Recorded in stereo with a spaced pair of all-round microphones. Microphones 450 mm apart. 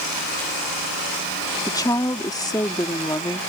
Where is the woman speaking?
10° left (ahead or behind).